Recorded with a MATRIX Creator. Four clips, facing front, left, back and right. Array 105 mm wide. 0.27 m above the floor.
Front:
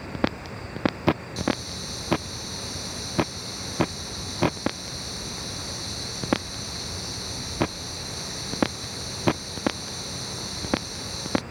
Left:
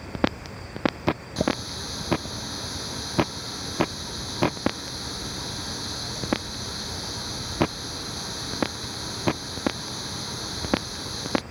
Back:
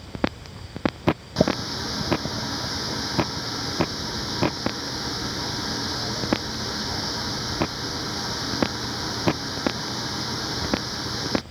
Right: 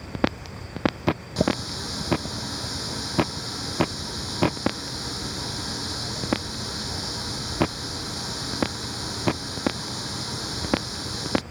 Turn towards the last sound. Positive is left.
turn(degrees=-170)